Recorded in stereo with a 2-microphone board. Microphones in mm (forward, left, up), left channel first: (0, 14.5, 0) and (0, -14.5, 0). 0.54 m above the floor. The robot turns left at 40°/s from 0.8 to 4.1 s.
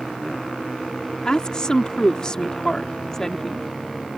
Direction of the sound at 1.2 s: 25° left (ahead or behind).